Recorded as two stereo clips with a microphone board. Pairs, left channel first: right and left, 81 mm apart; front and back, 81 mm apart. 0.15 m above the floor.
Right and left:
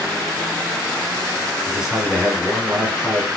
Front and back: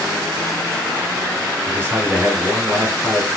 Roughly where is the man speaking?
Behind.